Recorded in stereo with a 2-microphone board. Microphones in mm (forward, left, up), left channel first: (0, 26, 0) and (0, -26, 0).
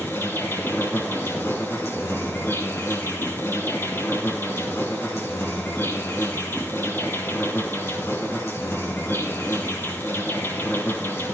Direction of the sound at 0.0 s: 50° left (ahead or behind).